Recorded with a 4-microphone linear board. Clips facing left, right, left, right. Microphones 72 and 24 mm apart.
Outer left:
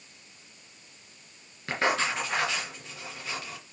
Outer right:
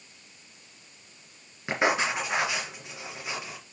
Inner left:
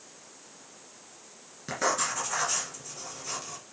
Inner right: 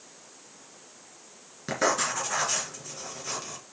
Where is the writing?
15° right (ahead or behind), 3 m.